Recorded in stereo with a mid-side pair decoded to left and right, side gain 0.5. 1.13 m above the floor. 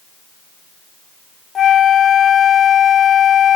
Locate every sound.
1.6 s a flute: 40° left, 0.5 m